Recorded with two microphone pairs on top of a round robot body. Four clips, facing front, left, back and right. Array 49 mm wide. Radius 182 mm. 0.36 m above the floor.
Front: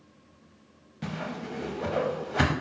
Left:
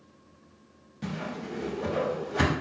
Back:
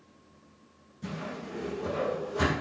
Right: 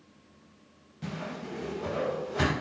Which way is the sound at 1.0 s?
5° left.